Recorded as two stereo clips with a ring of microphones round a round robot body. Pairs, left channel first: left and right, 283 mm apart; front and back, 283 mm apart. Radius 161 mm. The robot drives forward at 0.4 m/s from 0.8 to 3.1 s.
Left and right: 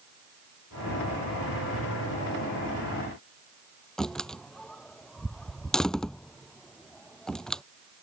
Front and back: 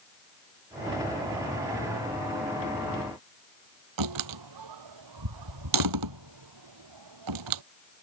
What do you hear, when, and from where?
4.0 s a door slam: straight behind